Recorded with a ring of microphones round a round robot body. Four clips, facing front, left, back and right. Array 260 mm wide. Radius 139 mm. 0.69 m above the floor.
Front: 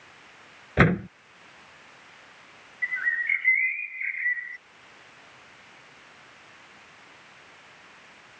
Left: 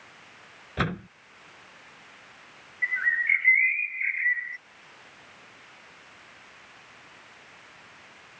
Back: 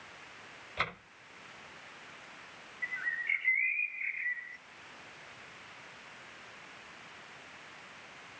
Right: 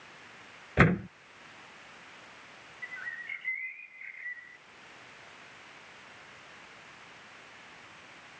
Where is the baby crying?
I don't hear a baby crying.